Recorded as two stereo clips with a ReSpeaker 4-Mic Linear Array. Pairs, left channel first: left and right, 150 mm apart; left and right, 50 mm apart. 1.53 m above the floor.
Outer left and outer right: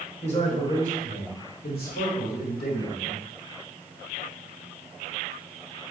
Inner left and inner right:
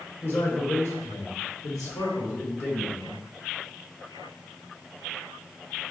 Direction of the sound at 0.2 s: 45° left (ahead or behind).